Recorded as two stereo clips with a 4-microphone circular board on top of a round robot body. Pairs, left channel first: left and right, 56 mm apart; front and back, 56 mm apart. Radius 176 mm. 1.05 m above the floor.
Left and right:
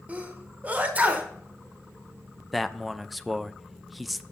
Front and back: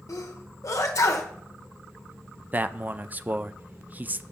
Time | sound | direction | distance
0.1 | a sneeze | 25° right | 1.1 m
2.5 | a man speaking | straight behind | 0.6 m